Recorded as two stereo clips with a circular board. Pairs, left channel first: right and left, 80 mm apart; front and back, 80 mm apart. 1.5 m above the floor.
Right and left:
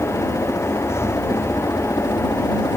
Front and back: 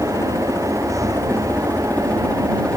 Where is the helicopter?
50° right; by 2.8 s 75° right.